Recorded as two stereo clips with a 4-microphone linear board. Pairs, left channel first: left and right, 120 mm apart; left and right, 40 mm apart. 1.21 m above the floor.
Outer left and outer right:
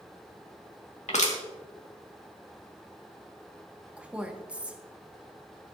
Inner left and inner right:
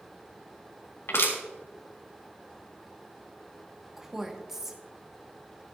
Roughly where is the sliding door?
No sliding door in this recording.